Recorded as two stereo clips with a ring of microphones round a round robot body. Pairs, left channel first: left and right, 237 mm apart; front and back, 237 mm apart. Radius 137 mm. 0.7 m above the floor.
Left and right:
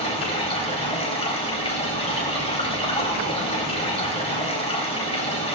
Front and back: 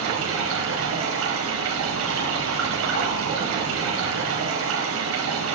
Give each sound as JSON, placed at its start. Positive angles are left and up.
{"t": 0.0, "sound": "running water", "azimuth_deg": 155, "distance_m": 4.5}